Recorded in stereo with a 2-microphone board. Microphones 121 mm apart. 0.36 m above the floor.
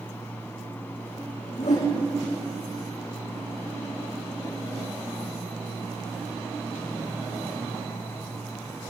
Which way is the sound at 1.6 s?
70° left (ahead or behind).